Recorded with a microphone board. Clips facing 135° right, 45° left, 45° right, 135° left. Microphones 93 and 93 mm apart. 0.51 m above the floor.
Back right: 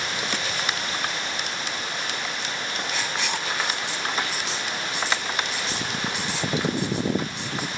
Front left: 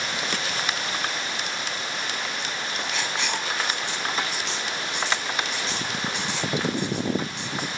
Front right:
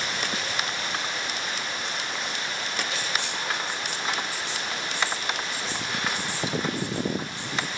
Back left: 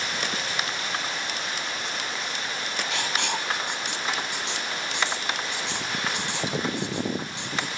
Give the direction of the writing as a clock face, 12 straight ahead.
7 o'clock.